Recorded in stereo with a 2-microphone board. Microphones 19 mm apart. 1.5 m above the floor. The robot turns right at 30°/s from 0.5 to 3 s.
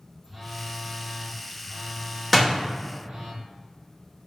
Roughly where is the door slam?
Centre.